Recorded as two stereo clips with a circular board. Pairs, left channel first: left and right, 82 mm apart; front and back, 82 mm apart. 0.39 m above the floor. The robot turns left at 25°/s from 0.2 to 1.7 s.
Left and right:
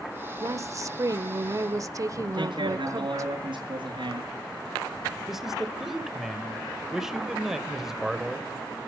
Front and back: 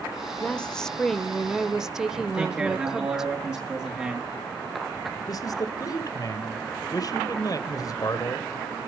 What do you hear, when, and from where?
0.4 s a woman speaking: 65° right, 1.1 m; by 3.3 s 100° right, 1.1 m
2.3 s a man speaking: 110° right, 5.5 m
5.3 s a man speaking: 5° right, 1.8 m